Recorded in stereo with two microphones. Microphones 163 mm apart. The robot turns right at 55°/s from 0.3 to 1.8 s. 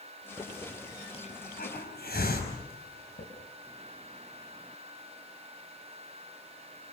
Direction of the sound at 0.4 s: 5° right (ahead or behind).